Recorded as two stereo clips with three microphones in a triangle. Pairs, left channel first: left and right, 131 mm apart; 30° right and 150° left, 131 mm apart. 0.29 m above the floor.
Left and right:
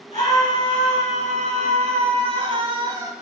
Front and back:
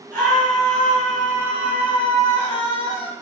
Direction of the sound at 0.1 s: 105° right.